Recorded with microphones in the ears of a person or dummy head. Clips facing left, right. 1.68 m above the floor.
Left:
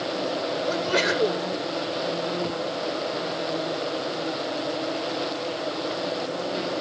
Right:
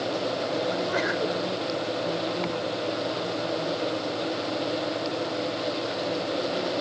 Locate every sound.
0.7 s a sneeze: 45° left (ahead or behind)